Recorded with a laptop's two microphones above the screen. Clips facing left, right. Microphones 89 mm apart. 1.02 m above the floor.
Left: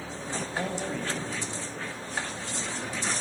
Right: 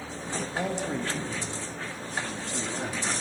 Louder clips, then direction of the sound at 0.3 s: Right 1 dB; 5° left (ahead or behind).